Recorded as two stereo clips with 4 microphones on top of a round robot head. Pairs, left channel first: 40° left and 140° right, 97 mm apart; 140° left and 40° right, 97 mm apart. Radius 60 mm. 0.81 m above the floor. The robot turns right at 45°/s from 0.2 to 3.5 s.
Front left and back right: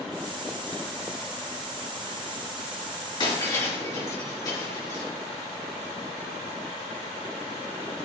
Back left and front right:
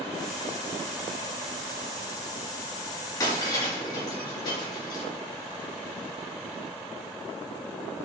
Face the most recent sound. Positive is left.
turn(degrees=95)